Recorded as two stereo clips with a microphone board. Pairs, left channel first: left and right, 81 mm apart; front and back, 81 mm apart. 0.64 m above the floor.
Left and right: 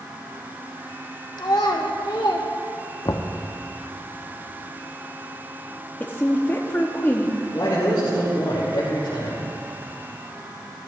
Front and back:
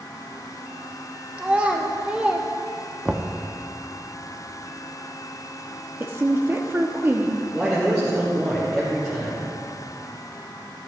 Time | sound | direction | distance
1.4 | a child speaking | 110° left | 1.1 m
3.0 | knocking | 105° left | 0.5 m
6.0 | a woman speaking | 140° left | 0.6 m
7.5 | a man speaking | 110° left | 3 m